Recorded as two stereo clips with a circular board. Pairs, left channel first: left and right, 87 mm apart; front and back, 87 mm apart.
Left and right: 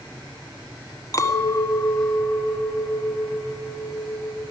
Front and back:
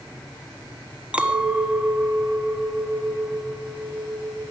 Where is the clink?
110° left, 1.0 m.